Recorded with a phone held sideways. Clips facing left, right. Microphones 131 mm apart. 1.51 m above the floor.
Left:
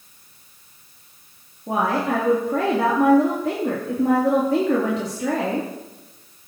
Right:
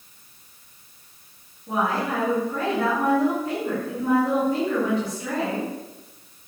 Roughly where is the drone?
No drone in this recording.